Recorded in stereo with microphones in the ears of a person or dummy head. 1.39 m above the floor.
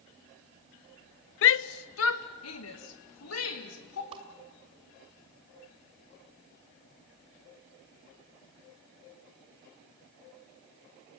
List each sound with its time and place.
1.4 s a shout: 60° left (ahead or behind), 0.6 m; by 4.0 s 75° left (ahead or behind), 3.5 m
4.1 s a whoosh: 30° right (ahead or behind), 1.4 m